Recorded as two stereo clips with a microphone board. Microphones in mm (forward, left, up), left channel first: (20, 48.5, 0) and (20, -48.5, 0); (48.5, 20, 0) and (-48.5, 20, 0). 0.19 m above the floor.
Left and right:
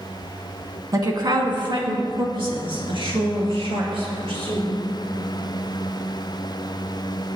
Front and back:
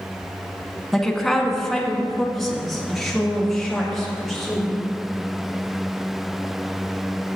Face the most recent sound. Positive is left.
turn(degrees=-90)